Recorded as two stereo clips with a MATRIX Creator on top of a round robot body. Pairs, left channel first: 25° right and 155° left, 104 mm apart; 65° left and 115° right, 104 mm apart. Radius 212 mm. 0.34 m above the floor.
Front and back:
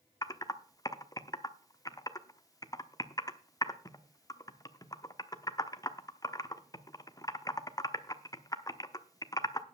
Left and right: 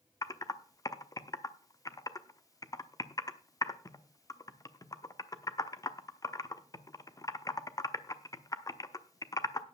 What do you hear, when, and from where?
0.2 s typing on a keyboard: 20° left, 1.2 m